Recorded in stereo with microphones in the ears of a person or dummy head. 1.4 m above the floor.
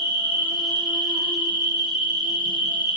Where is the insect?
35° right (ahead or behind), 1.5 m.